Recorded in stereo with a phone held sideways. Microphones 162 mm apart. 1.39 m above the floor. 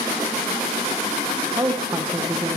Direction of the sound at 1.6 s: 25° right (ahead or behind).